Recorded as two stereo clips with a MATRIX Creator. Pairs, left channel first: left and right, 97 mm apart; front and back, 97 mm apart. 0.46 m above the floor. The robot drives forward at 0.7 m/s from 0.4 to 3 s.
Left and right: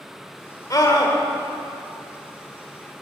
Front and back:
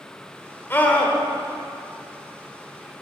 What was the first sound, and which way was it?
A scream, 60° left.